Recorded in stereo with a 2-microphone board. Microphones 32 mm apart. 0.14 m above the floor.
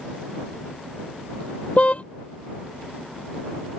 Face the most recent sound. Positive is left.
turn(degrees=40)  # may be behind; listen again after turning